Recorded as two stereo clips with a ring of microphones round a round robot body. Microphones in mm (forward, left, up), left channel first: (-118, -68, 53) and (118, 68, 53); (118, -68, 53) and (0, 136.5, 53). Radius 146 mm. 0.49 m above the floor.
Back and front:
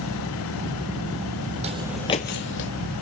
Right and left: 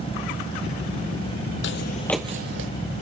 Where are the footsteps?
35° right, 0.8 m; by 2.7 s 165° left, 1.0 m.